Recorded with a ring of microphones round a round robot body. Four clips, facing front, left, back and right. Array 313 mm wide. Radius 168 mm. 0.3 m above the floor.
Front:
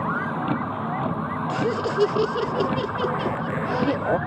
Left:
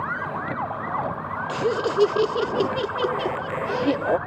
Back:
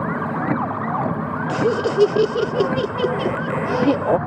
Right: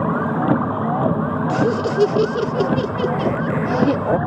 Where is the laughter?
155° right.